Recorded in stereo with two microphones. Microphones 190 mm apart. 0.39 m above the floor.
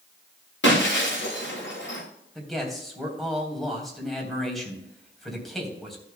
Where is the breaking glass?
75° left (ahead or behind), 4 m.